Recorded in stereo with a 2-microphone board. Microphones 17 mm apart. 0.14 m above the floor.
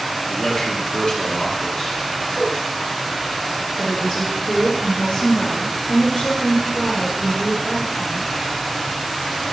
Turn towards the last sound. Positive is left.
turn(degrees=65)  # may be behind; listen again after turning